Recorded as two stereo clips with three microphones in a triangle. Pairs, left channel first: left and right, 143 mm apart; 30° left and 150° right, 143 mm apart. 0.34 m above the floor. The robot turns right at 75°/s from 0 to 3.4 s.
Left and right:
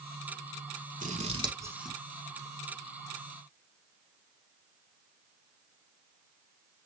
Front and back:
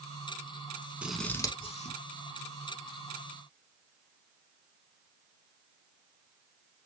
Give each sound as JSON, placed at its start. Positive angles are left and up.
{"t": 1.0, "sound": "scissors", "azimuth_deg": -70, "distance_m": 0.7}